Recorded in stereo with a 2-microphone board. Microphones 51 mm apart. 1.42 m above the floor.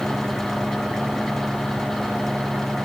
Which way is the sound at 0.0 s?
5° right (ahead or behind).